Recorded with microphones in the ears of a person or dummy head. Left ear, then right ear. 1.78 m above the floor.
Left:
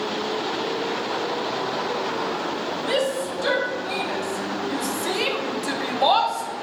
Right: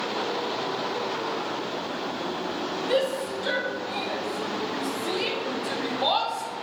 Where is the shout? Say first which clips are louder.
Left 1 dB; 85° left, 2.5 m; by 6.5 s 10° left (ahead or behind), 1.0 m.